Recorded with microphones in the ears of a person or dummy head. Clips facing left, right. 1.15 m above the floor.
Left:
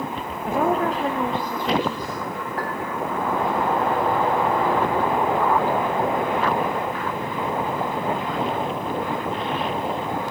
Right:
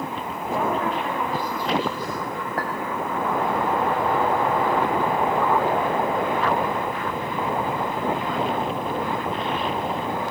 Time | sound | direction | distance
0.5 | a woman speaking | 45° left (ahead or behind) | 1.2 m
2.6 | a clink | 55° right (ahead or behind) | 3.5 m